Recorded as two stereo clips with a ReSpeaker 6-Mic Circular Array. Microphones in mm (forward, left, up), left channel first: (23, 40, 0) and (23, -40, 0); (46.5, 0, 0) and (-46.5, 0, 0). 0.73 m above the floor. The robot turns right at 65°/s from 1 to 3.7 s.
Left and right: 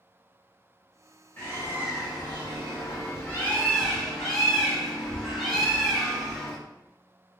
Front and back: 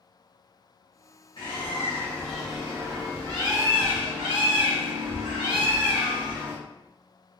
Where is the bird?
25° left, 2 m; by 6.6 s straight behind, 2 m.